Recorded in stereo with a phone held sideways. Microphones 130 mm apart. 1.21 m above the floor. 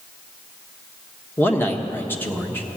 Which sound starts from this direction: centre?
A man speaking, at 1.4 s.